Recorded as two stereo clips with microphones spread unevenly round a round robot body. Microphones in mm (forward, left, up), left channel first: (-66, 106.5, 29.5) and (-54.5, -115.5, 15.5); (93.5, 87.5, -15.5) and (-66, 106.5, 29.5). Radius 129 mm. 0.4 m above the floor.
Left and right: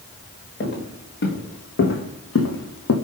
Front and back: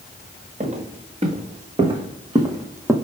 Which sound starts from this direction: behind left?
Footsteps, at 0.6 s.